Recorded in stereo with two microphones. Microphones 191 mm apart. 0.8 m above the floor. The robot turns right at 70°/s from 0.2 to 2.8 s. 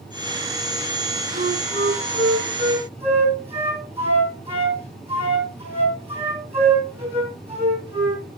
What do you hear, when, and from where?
1.3 s a flute: 45° right (ahead or behind), 5 m; by 8.2 s 30° right (ahead or behind), 5 m